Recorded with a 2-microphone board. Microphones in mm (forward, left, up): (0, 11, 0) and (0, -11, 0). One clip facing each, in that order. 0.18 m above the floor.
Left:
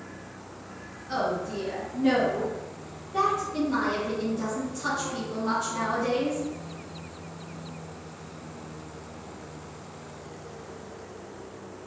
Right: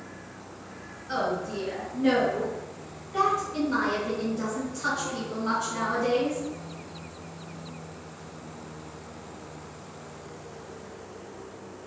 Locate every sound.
1.1 s a woman speaking: 20° right (ahead or behind), 1.3 m